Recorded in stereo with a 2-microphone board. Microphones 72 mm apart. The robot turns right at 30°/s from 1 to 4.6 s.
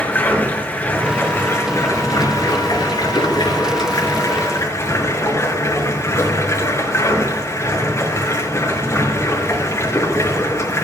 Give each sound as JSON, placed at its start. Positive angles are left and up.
{"t": 0.0, "sound": "running water", "azimuth_deg": 25, "distance_m": 4.0}